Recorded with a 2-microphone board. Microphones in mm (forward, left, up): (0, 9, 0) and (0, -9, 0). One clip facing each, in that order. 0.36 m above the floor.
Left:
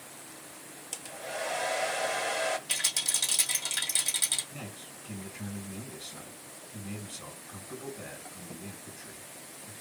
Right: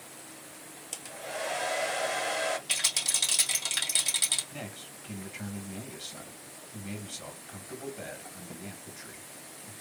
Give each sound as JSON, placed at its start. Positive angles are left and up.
{"t": 0.9, "sound": "a hair dryer", "side_deg": 0, "distance_m": 0.5}
{"t": 2.7, "sound": "a rattle", "side_deg": -15, "distance_m": 2.0}
{"t": 4.5, "sound": "a man speaking", "side_deg": -40, "distance_m": 1.9}